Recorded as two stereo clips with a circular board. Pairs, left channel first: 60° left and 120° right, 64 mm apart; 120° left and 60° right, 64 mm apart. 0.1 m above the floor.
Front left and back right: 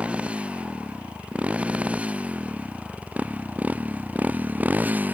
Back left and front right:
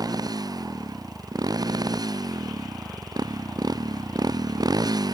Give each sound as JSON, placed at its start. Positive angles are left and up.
{"t": 0.0, "sound": "a motorcycle", "azimuth_deg": -50}